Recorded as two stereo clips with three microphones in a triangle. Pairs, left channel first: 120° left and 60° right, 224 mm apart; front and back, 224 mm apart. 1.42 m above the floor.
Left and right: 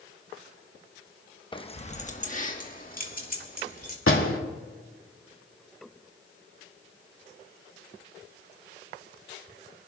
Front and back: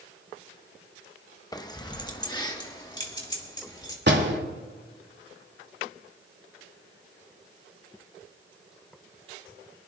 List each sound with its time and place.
1.5 s keys jangling: 65° left, 0.8 m; by 4.0 s 70° left, 3 m
4.1 s a door slam: 140° left, 2 m